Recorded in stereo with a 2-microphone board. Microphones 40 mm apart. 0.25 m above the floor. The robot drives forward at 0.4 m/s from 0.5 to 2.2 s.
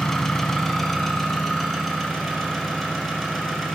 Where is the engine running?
10° left (ahead or behind), 0.7 m; by 3.8 s 5° left (ahead or behind), 1.3 m.